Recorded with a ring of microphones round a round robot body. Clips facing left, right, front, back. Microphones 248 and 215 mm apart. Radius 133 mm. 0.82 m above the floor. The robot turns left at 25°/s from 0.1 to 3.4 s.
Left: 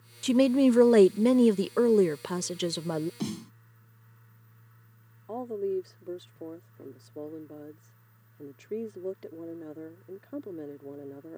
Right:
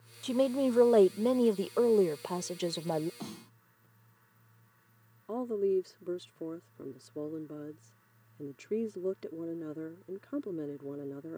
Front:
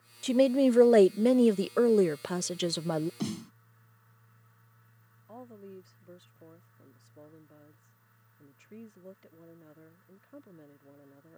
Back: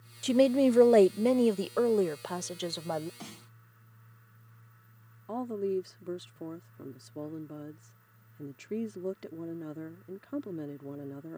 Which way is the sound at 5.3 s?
170° right.